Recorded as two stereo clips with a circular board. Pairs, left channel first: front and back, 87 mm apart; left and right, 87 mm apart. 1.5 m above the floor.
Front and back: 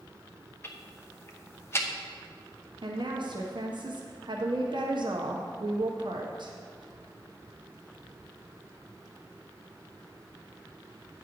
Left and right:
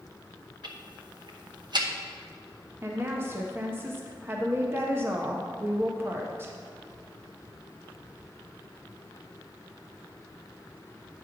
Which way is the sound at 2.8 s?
155° right.